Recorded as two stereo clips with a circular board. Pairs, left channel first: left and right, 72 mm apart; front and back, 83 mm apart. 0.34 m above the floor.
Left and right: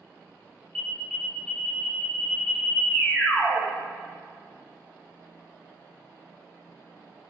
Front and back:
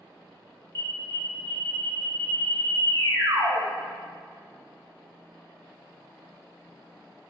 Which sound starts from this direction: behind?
An alarm, at 0.8 s.